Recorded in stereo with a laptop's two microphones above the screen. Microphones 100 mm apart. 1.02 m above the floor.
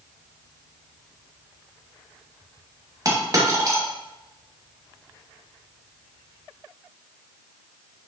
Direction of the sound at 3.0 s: 35° right (ahead or behind).